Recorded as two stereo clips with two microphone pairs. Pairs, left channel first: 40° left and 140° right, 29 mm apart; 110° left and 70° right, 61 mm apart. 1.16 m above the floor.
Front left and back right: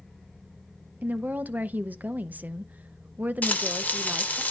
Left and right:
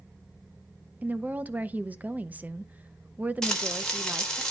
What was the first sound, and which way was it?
A woman speaking, 130° right.